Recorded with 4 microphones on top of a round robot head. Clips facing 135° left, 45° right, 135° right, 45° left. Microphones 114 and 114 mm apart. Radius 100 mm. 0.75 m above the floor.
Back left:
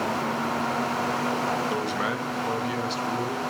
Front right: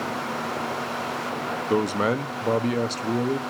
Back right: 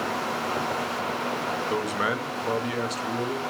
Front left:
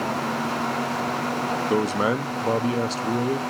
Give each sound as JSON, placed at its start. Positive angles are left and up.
{"t": 1.7, "sound": "a man speaking", "azimuth_deg": -10, "distance_m": 0.8}